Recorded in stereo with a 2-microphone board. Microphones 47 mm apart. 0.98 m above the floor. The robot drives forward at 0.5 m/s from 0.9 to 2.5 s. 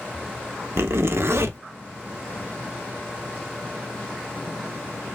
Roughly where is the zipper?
Right.